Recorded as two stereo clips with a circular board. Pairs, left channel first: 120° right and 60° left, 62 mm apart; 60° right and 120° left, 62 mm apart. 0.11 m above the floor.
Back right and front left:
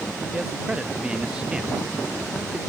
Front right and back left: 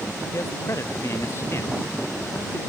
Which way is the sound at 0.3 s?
15° right.